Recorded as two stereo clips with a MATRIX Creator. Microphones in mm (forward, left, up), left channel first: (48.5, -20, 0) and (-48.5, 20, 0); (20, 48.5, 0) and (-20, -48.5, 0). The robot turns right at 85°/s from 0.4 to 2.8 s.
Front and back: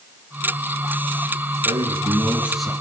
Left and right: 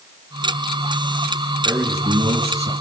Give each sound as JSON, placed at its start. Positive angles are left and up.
{"t": 1.6, "sound": "a man speaking", "azimuth_deg": 165, "distance_m": 6.5}